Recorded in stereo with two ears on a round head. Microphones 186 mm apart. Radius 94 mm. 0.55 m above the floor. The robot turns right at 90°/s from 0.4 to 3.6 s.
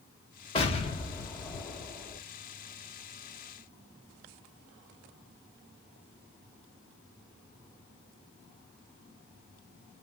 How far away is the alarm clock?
No alarm clock in this recording.